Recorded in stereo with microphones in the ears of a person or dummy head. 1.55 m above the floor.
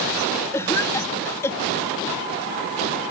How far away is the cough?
About 2.5 m.